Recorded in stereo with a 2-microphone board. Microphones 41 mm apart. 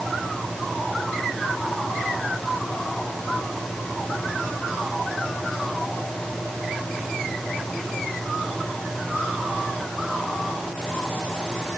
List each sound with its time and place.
Only background noise.